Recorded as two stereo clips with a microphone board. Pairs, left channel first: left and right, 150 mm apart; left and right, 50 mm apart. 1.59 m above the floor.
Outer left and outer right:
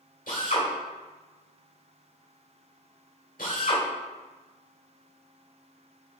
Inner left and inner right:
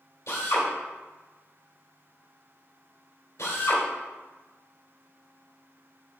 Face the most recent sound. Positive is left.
turn(degrees=65)  # may be behind; listen again after turning